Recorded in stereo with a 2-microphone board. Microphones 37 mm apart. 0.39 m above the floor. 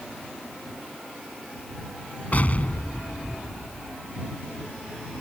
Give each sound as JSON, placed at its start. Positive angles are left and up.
{"t": 2.3, "sound": "an explosion", "side_deg": 45}